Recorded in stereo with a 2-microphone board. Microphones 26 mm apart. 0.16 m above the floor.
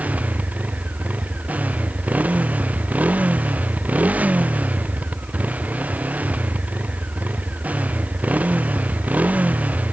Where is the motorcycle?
85° right.